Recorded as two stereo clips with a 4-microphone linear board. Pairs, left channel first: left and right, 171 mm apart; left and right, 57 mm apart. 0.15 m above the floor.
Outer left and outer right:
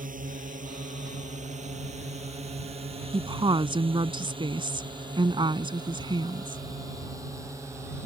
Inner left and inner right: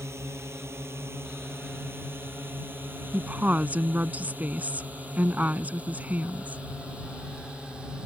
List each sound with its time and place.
0.0 s a drone: 50° right (ahead or behind); by 8.1 s 15° right (ahead or behind)
3.1 s a woman speaking: 30° right (ahead or behind)